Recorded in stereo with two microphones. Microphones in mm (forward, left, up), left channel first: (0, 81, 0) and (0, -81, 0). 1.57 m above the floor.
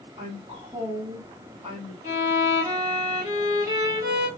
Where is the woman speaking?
40° right (ahead or behind), 1.8 m.